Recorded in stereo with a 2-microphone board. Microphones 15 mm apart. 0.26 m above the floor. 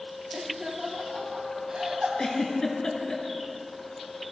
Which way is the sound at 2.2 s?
45° left (ahead or behind).